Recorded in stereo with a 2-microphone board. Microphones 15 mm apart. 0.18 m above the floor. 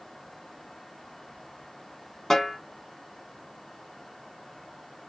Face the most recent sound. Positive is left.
turn(degrees=30)  # may be behind; listen again after turning